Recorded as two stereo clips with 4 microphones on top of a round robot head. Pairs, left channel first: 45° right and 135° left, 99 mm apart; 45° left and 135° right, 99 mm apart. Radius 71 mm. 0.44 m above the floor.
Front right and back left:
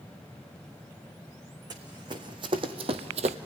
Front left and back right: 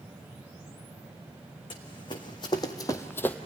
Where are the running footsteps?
85° left, 2 m; by 3.4 s 125° left, 0.8 m.